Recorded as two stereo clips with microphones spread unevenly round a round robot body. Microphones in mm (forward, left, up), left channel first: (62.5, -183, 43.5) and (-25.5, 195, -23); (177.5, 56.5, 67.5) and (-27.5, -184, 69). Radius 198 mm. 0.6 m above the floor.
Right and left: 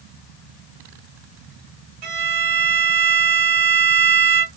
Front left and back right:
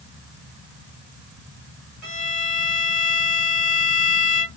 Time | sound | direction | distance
2.0 | a violin | 135° left | 0.8 m